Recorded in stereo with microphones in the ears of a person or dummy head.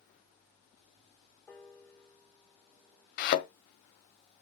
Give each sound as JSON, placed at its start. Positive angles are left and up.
{"t": 1.5, "sound": "a piano", "side_deg": 0, "distance_m": 3.5}
{"t": 3.2, "sound": "a thud", "side_deg": 55, "distance_m": 1.5}